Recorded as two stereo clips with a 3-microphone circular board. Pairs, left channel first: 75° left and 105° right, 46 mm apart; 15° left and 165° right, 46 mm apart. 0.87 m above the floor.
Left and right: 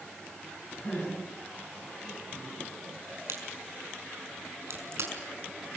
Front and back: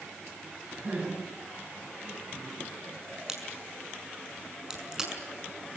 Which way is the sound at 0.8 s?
120° left.